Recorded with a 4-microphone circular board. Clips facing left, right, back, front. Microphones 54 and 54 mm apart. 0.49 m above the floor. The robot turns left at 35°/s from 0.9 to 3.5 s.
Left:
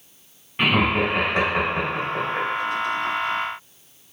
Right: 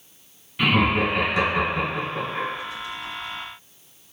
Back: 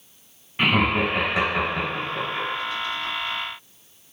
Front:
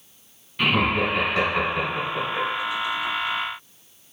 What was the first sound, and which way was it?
Laughter, 130° left.